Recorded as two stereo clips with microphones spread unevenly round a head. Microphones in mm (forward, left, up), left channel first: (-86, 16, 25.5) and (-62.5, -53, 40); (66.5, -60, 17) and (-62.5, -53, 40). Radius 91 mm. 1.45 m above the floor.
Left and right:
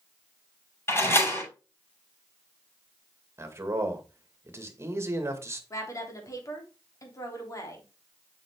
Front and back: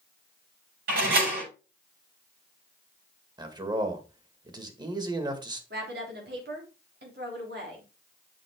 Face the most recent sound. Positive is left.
turn(degrees=150)